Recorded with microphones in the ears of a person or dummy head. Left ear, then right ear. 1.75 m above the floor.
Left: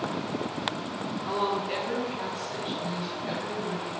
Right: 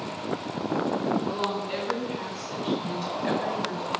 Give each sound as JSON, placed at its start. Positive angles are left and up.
{"t": 1.3, "sound": "a woman speaking", "side_deg": 25, "distance_m": 2.0}